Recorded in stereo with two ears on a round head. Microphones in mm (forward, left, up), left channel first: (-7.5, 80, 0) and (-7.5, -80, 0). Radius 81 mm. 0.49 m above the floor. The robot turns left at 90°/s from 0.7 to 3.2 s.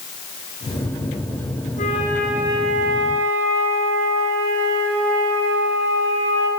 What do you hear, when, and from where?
1.8 s a flute: 45° left, 5.5 m; by 6.5 s 85° right, 5.5 m